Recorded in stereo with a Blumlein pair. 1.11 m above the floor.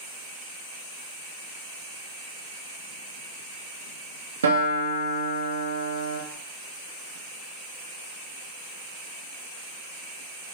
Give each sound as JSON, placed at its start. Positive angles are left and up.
{"t": 4.4, "sound": "a guitar", "azimuth_deg": -70, "distance_m": 0.7}